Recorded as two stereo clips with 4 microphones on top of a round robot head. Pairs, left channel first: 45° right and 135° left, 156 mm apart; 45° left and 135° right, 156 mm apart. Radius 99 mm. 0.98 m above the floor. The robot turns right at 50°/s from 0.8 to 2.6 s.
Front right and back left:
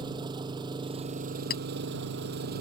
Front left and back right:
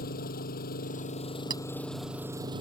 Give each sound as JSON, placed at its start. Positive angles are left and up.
{"t": 0.0, "sound": "an engine running", "azimuth_deg": 75}
{"t": 1.5, "sound": "a clink", "azimuth_deg": -70}